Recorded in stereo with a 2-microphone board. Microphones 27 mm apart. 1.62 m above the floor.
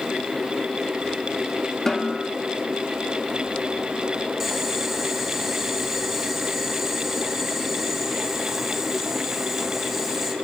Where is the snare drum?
15° left (ahead or behind), 3.5 m.